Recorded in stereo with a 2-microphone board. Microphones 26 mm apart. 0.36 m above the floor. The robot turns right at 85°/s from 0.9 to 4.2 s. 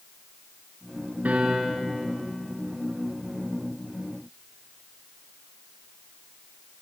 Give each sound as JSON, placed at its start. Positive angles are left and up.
{"t": 1.2, "sound": "a piano", "azimuth_deg": -80, "distance_m": 2.5}